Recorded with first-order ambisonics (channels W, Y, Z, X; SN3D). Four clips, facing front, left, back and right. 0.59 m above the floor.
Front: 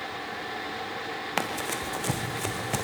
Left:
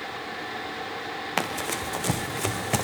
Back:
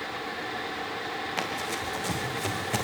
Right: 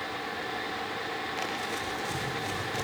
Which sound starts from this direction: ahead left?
Running footsteps, at 1.4 s.